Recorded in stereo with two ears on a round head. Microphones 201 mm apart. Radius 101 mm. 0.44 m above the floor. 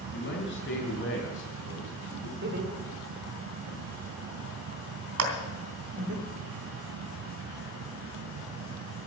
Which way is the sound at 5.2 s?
70° right (ahead or behind).